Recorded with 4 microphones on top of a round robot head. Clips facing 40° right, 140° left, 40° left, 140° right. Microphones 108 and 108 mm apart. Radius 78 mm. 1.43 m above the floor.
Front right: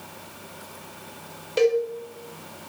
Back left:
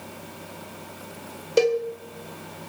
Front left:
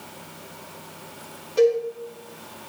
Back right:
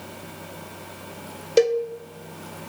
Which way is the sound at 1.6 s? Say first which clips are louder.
Even, even; 165° right.